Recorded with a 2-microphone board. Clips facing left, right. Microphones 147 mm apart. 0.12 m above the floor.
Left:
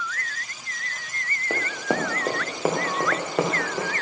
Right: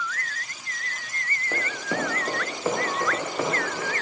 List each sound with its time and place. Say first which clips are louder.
1.5 s running footsteps: left 4 dB; 80° left, 2 m; by 3.9 s 75° left (ahead or behind), 3.5 m